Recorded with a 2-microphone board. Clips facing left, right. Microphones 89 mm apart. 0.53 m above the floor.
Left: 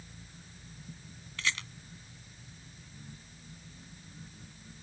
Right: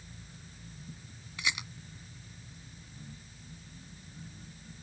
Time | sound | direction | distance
1.4 | a rattle | 15° right (ahead or behind) | ?